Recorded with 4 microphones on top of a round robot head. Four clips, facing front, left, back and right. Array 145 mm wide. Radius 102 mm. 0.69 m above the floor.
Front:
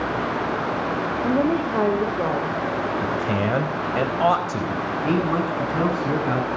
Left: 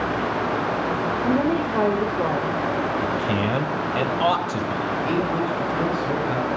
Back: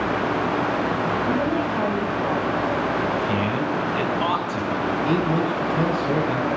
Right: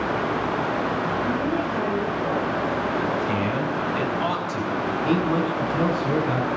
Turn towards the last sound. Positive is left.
turn(degrees=-15)